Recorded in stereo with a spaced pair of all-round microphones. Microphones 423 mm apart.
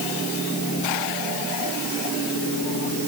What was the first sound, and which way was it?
Only background noise.